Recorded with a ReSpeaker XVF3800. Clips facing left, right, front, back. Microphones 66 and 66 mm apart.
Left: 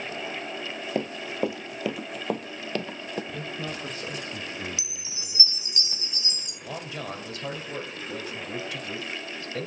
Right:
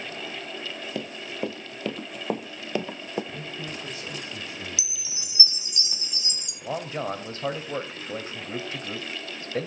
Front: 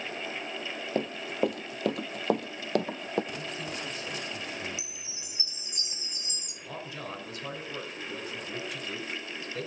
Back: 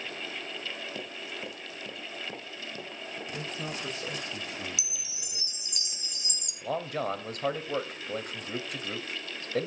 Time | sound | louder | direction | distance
0.9 | running footsteps | left 5 dB, front 10 dB | 40° left | 1.3 m
3.3 | a man speaking | left 2 dB, even | 135° left | 3 m
4.8 | a chime | even, front 1 dB | 160° right | 3.5 m
6.6 | a man speaking | right 6 dB, back 9 dB | 145° right | 4 m